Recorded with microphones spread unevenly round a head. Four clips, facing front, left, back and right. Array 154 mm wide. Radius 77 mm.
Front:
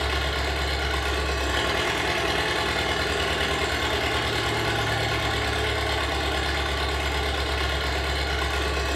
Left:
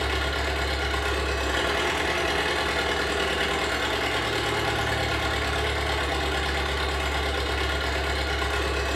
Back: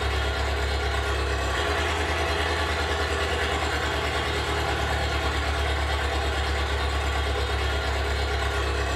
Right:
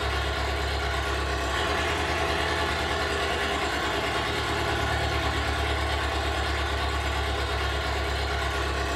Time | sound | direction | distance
0.0 | an engine running | 40° left | 1.5 m